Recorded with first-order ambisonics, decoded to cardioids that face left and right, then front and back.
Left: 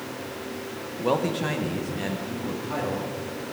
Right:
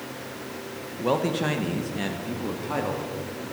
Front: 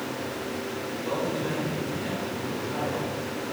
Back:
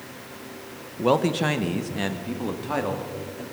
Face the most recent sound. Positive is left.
turn(degrees=-160)